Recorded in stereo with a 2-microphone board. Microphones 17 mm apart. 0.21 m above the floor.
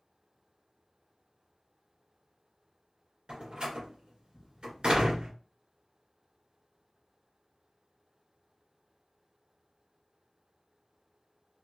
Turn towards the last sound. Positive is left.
turn(degrees=-65)  # may be behind; listen again after turning